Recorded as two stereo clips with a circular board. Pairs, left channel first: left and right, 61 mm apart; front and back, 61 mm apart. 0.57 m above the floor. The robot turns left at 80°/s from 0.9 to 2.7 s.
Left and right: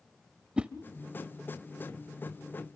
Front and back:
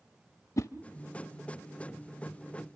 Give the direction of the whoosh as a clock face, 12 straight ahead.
1 o'clock.